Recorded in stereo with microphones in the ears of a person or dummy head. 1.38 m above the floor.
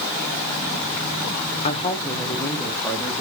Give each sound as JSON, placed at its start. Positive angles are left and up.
{"t": 1.6, "sound": "a woman speaking", "side_deg": 40, "distance_m": 1.0}